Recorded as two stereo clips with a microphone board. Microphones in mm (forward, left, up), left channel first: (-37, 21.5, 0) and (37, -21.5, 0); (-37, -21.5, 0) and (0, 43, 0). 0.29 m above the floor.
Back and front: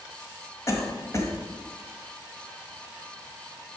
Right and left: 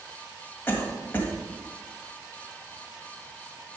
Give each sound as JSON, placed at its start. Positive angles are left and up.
{"t": 0.7, "sound": "a cough", "azimuth_deg": -170, "distance_m": 1.6}